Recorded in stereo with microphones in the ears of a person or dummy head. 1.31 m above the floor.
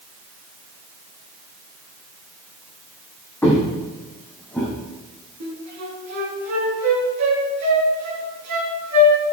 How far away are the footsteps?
About 2.5 m.